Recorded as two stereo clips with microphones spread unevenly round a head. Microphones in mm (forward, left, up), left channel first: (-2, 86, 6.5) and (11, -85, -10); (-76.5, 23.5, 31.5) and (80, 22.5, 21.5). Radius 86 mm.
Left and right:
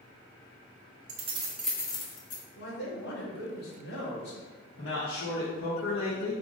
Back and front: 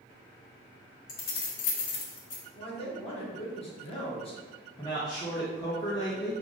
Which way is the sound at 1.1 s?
135° right.